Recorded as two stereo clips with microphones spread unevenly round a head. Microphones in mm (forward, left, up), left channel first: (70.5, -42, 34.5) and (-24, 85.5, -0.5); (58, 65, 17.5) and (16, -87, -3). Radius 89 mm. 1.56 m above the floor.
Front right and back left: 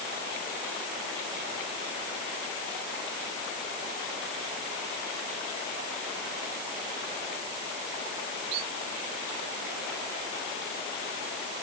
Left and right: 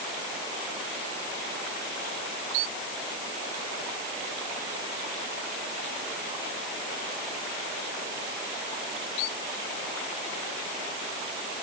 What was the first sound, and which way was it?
Only background noise.